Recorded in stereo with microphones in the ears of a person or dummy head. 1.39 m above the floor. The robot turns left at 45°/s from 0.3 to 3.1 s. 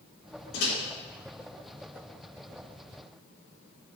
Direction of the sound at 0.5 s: 85° left.